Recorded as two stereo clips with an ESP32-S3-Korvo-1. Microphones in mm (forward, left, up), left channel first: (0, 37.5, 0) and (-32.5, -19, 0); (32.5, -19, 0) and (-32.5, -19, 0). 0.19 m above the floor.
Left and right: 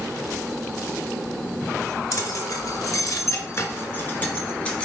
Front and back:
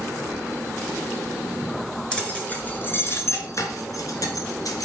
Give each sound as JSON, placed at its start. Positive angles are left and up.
{"t": 2.1, "sound": "keys jangling", "azimuth_deg": 75, "distance_m": 2.0}